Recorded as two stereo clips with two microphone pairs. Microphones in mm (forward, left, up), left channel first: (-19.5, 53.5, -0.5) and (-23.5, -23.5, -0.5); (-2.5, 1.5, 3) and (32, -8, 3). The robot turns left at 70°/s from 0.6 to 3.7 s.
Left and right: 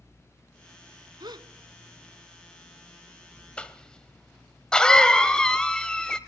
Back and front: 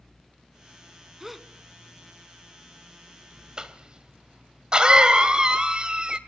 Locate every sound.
1.2 s a gasp: 95° right, 1.1 m; by 1.5 s 115° right, 1.1 m
3.6 s a cough: 25° left, 1.7 m; by 6.2 s 20° left, 1.7 m